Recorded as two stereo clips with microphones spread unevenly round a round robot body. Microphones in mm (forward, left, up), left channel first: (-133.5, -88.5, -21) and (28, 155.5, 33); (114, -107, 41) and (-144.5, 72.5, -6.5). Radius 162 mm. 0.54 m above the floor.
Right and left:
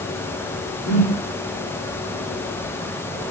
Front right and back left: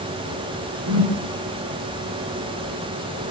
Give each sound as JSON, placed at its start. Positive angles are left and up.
{"t": 0.9, "sound": "a whoosh", "azimuth_deg": -170, "distance_m": 5.5}